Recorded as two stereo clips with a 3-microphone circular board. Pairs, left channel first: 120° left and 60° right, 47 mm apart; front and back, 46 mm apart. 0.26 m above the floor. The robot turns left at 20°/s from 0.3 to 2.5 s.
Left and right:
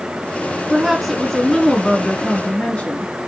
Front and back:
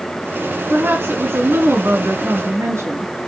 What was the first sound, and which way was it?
A woman speaking, 145° right.